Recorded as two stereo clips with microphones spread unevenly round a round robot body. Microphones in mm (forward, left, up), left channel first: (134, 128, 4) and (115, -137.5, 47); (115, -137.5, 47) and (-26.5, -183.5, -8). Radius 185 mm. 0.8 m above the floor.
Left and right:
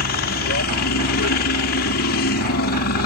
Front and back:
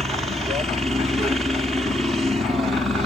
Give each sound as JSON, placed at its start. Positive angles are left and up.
{"t": 0.0, "sound": "a helicopter", "azimuth_deg": 120}